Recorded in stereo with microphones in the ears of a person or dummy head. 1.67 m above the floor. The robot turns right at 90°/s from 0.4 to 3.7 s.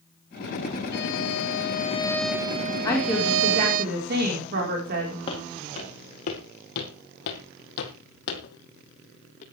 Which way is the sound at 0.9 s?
55° left.